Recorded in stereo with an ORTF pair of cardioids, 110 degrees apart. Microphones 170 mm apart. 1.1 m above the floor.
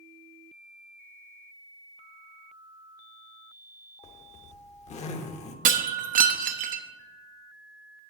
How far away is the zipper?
About 1.0 m.